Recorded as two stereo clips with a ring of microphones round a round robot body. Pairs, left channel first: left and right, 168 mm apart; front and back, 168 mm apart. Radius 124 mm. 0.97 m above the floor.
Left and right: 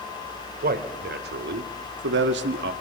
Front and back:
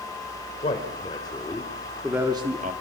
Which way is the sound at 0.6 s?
65° right.